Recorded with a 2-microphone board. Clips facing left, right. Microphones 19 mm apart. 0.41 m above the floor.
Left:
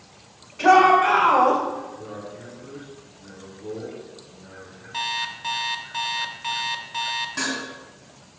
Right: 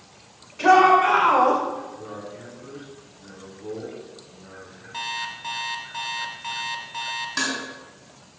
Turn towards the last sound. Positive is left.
turn(degrees=-80)